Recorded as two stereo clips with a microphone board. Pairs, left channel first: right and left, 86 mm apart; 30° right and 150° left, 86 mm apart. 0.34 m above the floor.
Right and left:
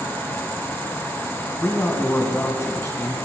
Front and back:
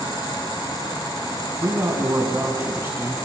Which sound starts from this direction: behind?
A man speaking, at 1.6 s.